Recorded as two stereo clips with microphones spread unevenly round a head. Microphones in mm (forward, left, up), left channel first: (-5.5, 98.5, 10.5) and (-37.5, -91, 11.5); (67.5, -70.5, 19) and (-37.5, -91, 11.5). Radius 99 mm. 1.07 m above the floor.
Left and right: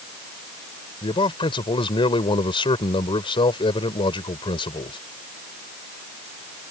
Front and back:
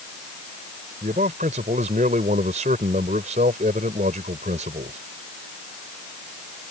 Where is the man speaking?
145° left.